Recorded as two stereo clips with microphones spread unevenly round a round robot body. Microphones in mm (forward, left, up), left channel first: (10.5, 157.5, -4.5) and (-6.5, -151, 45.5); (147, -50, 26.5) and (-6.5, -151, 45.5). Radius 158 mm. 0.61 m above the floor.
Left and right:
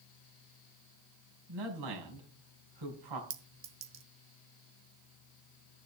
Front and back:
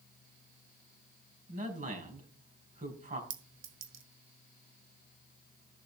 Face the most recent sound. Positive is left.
turn(degrees=-145)